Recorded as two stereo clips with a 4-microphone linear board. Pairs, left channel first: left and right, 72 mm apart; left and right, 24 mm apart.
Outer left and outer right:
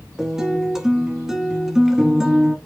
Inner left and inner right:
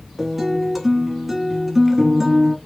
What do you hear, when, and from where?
0.2 s a guitar: 5° right (ahead or behind), 0.9 m